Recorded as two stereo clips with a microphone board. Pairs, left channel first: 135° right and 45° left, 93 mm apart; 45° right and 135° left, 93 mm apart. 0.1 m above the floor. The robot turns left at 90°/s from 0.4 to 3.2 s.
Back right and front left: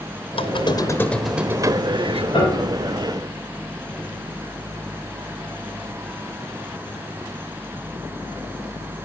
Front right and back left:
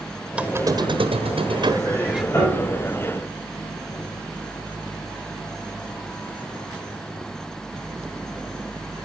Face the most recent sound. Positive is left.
turn(degrees=180)